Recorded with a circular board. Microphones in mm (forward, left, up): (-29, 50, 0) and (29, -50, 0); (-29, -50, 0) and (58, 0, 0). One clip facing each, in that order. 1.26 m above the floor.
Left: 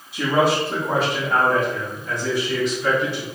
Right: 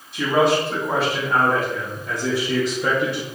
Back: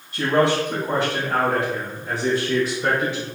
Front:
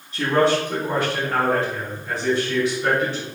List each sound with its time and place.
0.1 s a man speaking: 160° right, 1.9 m; by 3.2 s 75° right, 0.8 m